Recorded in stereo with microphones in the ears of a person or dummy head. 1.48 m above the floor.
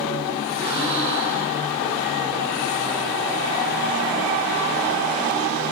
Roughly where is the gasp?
Right.